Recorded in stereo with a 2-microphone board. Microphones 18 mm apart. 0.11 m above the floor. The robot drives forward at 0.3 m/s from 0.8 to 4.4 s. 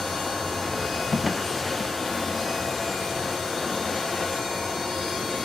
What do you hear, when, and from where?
1.1 s a drawer: 5° left (ahead or behind)